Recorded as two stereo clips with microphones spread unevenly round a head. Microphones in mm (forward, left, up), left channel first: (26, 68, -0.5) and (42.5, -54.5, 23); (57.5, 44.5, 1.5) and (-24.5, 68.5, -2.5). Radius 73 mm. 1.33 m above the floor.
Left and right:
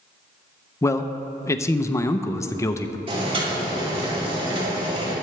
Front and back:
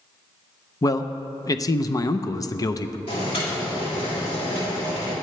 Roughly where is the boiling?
Ahead right.